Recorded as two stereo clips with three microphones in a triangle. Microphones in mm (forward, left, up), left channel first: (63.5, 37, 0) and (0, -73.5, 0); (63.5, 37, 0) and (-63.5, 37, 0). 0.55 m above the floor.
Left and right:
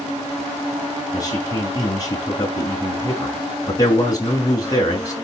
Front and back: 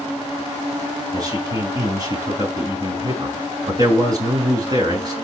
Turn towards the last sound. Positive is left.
turn(degrees=120)